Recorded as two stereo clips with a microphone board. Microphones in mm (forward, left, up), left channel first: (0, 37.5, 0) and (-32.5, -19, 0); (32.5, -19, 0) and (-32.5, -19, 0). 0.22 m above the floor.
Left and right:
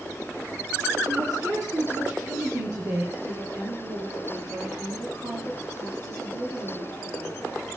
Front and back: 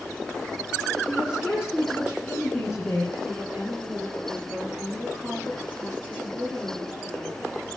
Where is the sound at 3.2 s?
110° right, 6 m.